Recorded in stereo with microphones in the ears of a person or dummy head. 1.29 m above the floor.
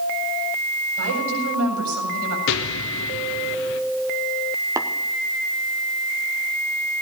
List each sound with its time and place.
1.0 s a woman speaking: 75° right (ahead or behind), 7.5 m
2.5 s an explosion: 70° left (ahead or behind), 1.3 m
4.8 s tapping: 15° right (ahead or behind), 0.8 m